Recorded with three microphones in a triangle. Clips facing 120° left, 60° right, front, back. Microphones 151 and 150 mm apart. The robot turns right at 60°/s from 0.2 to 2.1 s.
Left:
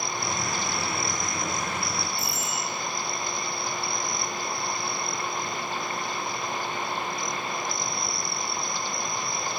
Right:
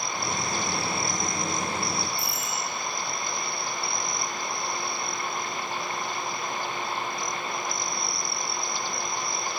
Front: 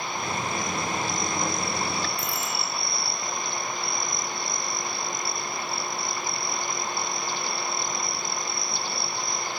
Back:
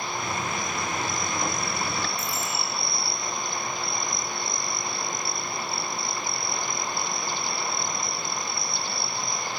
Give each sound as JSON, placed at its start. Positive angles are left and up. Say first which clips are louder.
{"t": 2.2, "sound": "a bicycle bell", "louder": "left 1 dB, even", "azimuth_deg": 30, "distance_m": 8.0}